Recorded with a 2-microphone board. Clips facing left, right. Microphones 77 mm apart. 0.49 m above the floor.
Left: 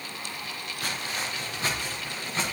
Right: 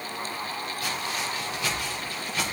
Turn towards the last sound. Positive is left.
turn(degrees=25)  # may be behind; listen again after turning